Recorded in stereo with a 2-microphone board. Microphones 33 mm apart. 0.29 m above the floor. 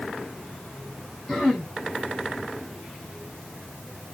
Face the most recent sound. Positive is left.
turn(degrees=20)  # may be behind; listen again after turning